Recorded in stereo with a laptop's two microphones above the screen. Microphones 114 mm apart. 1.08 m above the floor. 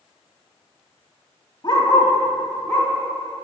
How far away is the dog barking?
About 1.7 m.